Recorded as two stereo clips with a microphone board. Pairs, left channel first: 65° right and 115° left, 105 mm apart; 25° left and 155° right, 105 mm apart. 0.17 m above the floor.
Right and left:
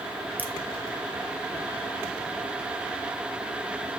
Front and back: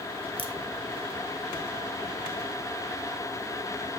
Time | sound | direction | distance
0.4 | a crack | 40° left | 1.0 m